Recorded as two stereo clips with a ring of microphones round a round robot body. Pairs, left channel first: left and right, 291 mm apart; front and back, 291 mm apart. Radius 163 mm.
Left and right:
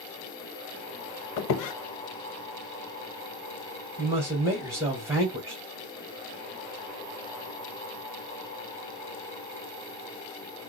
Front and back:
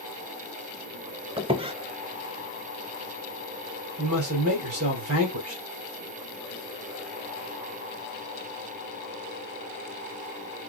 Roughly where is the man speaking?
Behind.